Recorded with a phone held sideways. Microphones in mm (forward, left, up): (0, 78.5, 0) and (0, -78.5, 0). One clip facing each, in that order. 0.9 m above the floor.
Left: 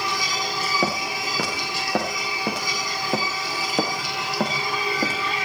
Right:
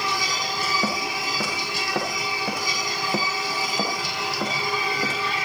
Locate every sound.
0.8 s footsteps: 70° left (ahead or behind), 7 m; by 5.2 s 60° left (ahead or behind), 6 m